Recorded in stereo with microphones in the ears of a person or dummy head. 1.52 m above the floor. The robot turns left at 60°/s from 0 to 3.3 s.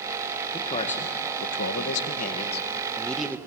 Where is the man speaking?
160° left, 1.7 m; by 3.4 s 5° right, 1.7 m.